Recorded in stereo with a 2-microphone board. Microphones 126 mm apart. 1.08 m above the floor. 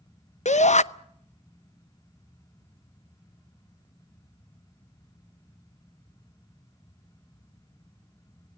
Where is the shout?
70° left (ahead or behind), 0.7 m.